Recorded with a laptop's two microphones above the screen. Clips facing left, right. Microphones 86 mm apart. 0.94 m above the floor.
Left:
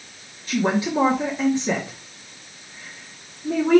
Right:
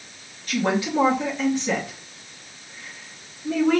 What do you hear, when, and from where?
0.5 s a woman speaking: 25° left (ahead or behind), 1.5 m